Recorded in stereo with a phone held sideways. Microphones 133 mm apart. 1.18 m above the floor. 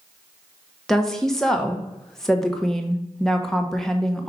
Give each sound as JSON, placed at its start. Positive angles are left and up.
{"t": 0.9, "sound": "a woman speaking", "side_deg": 5, "distance_m": 0.9}